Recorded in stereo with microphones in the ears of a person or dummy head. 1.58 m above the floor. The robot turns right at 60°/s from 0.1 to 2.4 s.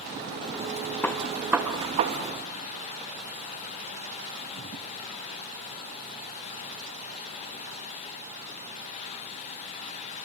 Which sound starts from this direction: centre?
A gunshot, at 1.0 s.